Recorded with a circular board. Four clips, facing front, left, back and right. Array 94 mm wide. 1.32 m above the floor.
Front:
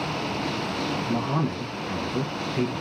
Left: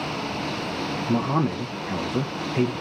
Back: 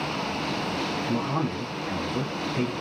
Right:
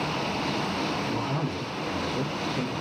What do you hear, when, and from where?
1.1 s a man speaking: 85° left, 0.7 m